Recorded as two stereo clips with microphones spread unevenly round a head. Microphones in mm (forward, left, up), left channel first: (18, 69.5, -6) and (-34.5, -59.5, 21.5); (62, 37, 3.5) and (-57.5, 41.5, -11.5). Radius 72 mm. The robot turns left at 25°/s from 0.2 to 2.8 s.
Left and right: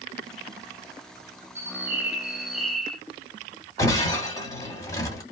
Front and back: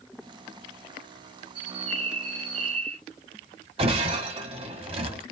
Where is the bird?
160° right, 1.2 m; by 3.0 s 170° left, 1.2 m.